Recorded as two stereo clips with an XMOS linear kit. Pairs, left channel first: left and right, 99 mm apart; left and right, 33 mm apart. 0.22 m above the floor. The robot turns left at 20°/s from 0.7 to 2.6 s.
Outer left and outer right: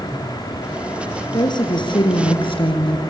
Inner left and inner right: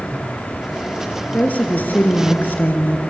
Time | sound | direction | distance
1.3 | a woman speaking | 50° left (ahead or behind) | 3 m